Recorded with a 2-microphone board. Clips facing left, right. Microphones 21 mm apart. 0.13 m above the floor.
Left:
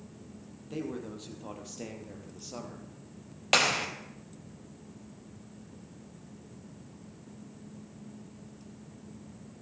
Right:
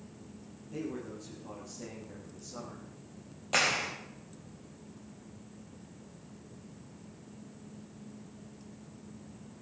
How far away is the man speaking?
About 4 m.